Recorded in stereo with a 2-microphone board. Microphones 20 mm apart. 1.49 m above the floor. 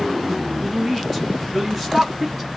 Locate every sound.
0.6 s a woman speaking: 10° right (ahead or behind), 1.8 m